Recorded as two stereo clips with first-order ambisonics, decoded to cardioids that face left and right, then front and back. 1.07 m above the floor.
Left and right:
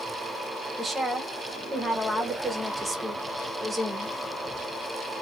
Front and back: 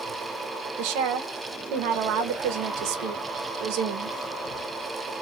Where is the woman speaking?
170° right, 0.7 m.